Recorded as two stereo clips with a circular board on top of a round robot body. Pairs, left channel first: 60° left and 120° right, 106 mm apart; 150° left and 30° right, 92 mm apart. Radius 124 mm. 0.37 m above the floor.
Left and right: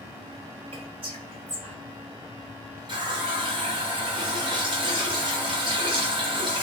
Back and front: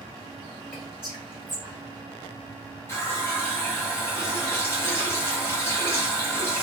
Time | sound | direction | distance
0.7 | whispering | 135° right | 1.6 m
2.9 | a running tap | 150° right | 1.1 m